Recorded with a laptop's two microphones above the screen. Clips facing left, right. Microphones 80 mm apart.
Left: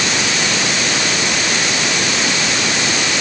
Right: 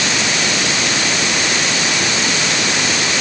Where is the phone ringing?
I don't hear a phone ringing.